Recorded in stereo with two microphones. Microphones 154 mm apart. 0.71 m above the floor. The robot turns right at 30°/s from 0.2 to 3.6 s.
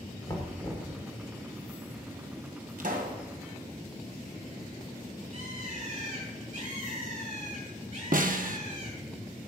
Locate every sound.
0.3 s knocking: 25° left (ahead or behind), 2.0 m; by 0.9 s 5° left (ahead or behind), 2.0 m
2.8 s a pop: 65° right (ahead or behind), 1.6 m; by 3.2 s 75° right (ahead or behind), 1.6 m
5.3 s a bird: 55° right (ahead or behind), 6.5 m
8.1 s a snare drum: 65° right (ahead or behind), 0.9 m